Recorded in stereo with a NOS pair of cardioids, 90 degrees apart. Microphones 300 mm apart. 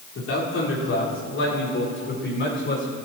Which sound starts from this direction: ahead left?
A man speaking, at 0.1 s.